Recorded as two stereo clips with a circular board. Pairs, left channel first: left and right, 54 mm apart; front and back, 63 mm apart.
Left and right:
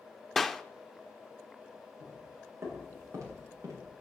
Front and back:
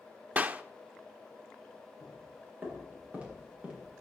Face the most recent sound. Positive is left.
turn(degrees=-110)